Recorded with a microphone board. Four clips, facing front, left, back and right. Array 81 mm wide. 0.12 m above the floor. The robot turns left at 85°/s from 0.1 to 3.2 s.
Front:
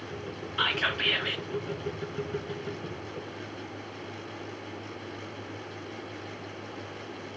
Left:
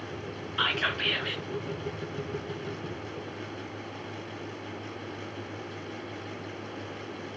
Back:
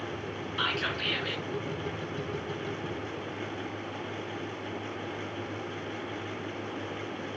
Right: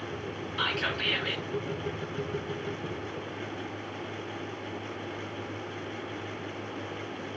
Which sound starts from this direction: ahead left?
Whispering, at 0.6 s.